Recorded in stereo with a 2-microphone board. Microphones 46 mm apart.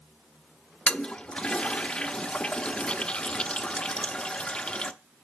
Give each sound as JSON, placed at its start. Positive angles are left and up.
{"t": 0.9, "sound": "a toilet flushing", "side_deg": 20, "distance_m": 0.5}